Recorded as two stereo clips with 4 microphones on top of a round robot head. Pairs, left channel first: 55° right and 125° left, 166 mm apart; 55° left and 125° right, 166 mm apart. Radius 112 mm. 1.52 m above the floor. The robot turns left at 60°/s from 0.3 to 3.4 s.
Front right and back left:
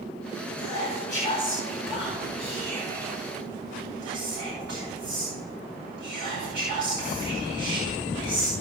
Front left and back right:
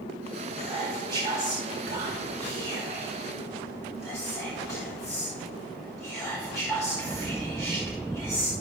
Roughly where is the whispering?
Ahead right.